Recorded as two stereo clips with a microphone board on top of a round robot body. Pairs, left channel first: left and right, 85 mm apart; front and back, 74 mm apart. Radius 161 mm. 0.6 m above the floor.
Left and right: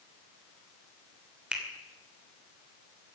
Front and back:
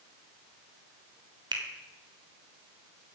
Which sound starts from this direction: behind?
A finger snap, at 1.5 s.